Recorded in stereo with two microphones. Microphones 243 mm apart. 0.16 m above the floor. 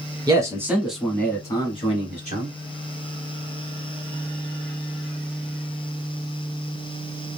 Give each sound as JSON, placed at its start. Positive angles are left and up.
{"t": 0.3, "sound": "a man speaking", "side_deg": -15, "distance_m": 1.2}